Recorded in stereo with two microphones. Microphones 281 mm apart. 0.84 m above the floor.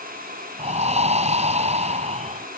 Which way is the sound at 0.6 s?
25° right (ahead or behind).